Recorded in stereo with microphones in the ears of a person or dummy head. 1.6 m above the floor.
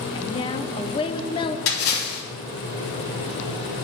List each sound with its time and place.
0.1 s a woman speaking: 25° left (ahead or behind), 0.9 m
1.7 s a splash: 75° left (ahead or behind), 3.5 m